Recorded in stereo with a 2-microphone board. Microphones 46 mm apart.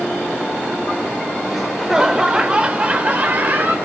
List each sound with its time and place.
1.5 s laughter: 5° right (ahead or behind), 1.4 m; by 3.8 s 45° right (ahead or behind), 1.8 m